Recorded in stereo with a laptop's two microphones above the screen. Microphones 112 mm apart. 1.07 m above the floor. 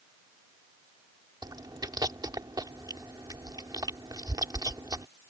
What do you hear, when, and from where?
1.4 s chewing: 35° right (ahead or behind)